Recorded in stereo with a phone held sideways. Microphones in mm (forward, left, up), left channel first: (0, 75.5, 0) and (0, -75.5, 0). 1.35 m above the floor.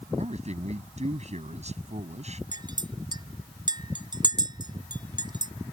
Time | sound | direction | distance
0.2 | a man speaking | 45° right (ahead or behind) | ?
2.5 | a clink | 30° right (ahead or behind) | ?